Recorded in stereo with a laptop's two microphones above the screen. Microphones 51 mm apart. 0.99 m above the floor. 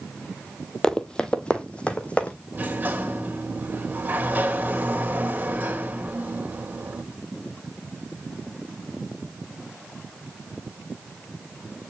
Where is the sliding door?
35° right (ahead or behind), 2.5 m.